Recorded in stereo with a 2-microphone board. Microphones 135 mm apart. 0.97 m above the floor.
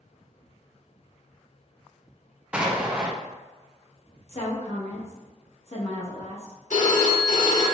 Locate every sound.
2.5 s an explosion: 10° right (ahead or behind), 0.6 m
4.3 s a woman speaking: 50° left (ahead or behind), 1.2 m
6.7 s a phone ringing: 70° left (ahead or behind), 1.1 m